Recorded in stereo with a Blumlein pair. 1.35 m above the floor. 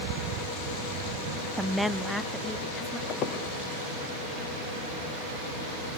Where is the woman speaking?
5° right, 0.6 m; by 3.0 s 10° left, 2 m.